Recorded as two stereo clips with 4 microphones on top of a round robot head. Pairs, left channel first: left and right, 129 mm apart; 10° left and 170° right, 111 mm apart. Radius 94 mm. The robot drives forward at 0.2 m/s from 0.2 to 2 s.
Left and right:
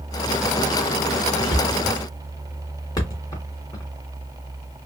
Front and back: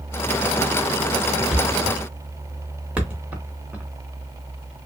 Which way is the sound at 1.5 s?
100° left.